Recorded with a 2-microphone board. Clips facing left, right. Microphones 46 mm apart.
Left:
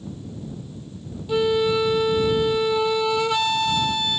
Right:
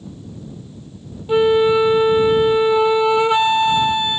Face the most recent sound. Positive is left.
turn(degrees=-25)  # may be behind; listen again after turning